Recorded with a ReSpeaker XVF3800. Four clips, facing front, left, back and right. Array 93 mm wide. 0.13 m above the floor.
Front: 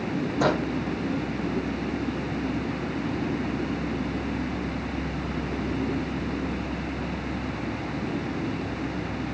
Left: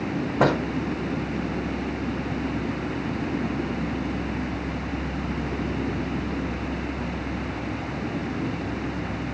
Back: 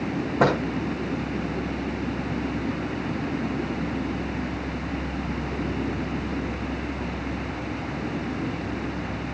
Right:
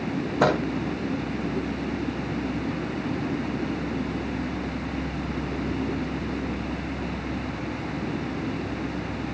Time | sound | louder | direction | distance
0.4 | a microwave | even, back 3 dB | 125° left | 5.5 m